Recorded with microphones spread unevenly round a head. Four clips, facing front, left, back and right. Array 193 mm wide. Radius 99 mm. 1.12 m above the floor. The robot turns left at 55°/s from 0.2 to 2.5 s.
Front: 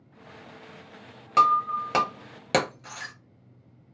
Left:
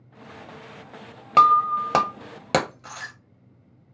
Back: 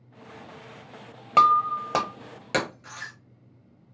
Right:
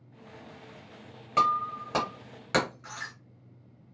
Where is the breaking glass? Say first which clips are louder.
Left 10 dB, back 2 dB; 130° left, 0.6 m; by 3.1 s 65° left, 0.6 m.